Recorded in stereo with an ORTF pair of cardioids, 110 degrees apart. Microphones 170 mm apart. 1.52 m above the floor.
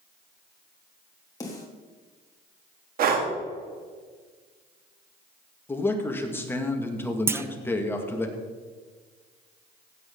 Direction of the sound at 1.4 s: 20° left.